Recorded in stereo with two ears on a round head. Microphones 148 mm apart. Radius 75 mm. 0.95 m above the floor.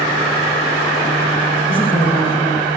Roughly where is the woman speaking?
Right.